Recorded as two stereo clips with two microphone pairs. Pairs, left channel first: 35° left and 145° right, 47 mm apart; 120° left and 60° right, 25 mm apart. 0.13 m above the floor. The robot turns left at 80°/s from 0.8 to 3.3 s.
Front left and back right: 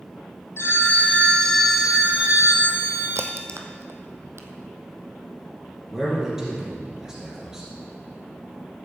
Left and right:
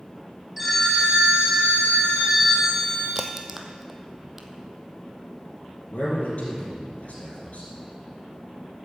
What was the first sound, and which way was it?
A phone ringing, 25° left.